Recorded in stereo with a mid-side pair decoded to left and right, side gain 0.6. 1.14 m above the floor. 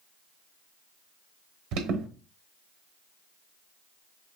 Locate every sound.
1.7 s an alarm: 70° right, 1.1 m